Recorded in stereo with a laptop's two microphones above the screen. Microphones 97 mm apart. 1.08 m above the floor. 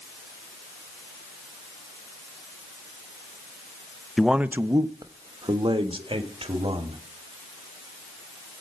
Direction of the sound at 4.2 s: 5° left (ahead or behind).